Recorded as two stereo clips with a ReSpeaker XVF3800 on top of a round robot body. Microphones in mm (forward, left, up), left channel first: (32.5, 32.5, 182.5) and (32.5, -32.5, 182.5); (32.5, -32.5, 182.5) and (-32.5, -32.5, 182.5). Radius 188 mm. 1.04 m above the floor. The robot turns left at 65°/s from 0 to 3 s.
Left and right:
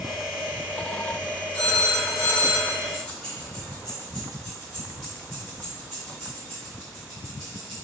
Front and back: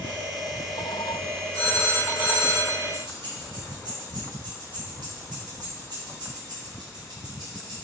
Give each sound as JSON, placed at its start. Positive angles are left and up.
{"t": 1.5, "sound": "a phone ringing", "azimuth_deg": 165, "distance_m": 1.9}
{"t": 2.9, "sound": "keys jangling", "azimuth_deg": 175, "distance_m": 1.6}